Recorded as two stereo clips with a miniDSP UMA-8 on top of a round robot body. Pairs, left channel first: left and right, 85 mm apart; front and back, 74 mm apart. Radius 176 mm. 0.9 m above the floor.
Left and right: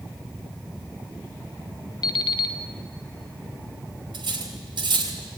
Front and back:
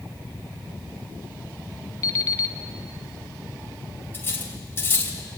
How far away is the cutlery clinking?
About 3 m.